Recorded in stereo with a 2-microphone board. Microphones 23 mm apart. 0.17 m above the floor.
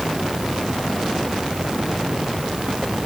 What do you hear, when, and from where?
Only background noise.